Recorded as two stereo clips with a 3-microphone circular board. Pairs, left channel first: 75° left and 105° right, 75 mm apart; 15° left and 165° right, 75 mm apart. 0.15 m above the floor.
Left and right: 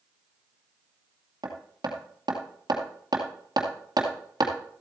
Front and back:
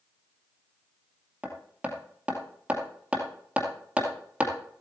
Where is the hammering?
90° right, 2 m.